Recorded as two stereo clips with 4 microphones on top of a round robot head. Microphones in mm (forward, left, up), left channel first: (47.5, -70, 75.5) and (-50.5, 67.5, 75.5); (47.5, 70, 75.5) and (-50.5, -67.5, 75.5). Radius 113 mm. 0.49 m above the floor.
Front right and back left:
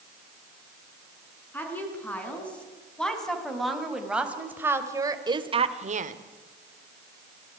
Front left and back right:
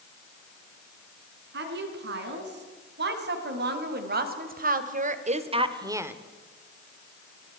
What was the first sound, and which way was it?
A woman speaking, 135° right.